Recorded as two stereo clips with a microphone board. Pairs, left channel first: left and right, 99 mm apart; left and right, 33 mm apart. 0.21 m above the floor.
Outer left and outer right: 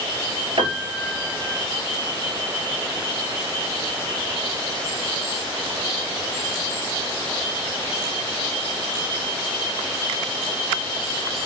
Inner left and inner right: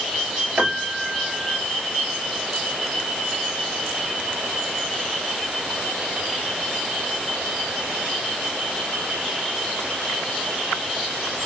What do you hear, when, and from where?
0.6 s a piano: 65° right (ahead or behind), 3 m